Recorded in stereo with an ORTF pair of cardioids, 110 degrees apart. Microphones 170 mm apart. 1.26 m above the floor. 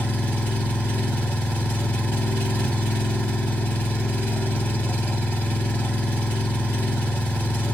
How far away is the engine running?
About 2 m.